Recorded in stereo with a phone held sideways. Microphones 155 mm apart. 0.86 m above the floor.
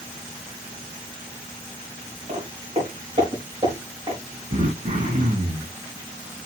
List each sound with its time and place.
2.3 s footsteps: 45° right (ahead or behind), 5 m; by 4.2 s 30° right (ahead or behind), 4 m
4.5 s throat clearing: 70° right (ahead or behind), 4 m